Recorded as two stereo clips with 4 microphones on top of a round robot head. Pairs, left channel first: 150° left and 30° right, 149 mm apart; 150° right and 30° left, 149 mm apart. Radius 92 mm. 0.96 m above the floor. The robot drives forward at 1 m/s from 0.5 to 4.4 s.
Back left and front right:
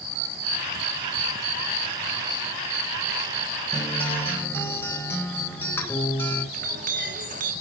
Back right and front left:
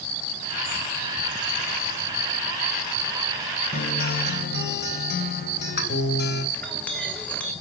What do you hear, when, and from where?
3.7 s a guitar: 125° right, 2.5 m; by 6.4 s 135° right, 3 m
6.5 s a clink: 65° right, 3 m